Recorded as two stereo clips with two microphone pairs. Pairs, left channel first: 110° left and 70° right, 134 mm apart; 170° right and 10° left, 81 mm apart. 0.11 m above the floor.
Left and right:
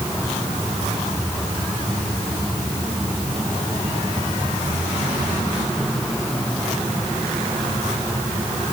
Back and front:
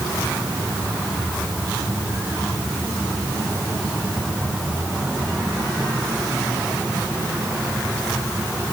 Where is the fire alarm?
No fire alarm in this recording.